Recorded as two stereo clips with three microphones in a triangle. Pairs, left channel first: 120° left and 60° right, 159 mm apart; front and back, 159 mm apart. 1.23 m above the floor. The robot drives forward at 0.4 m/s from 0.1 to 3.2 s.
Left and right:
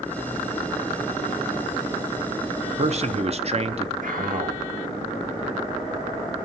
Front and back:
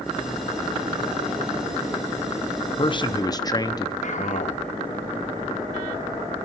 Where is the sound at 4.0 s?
35° right, 1.6 m.